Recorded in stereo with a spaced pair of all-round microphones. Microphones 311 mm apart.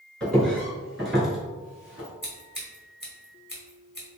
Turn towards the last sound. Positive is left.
turn(degrees=30)  # may be behind; listen again after turning